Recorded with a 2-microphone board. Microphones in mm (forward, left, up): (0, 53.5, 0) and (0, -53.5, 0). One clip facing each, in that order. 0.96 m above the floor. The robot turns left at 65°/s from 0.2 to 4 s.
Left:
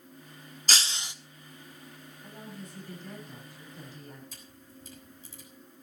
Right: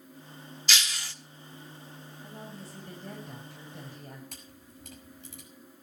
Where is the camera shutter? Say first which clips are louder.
Right 1 dB; 85° right, 5.5 m.